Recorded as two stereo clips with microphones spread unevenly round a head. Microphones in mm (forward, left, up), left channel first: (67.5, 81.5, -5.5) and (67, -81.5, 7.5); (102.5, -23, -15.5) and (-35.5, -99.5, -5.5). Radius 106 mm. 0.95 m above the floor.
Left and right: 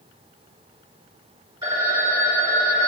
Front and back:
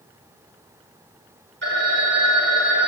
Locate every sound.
1.6 s a phone ringing: 165° right, 2.5 m